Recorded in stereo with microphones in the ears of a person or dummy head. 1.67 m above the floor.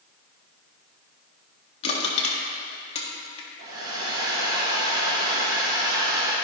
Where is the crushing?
35° left (ahead or behind), 1.5 m.